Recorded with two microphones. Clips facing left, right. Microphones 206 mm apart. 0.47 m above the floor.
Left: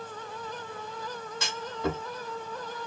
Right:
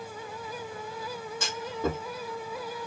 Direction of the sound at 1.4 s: 50° right (ahead or behind).